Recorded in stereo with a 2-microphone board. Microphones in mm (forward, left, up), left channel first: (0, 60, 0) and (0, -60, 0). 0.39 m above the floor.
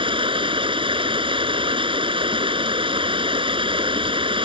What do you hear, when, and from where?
0.0 s running water: 45° right (ahead or behind)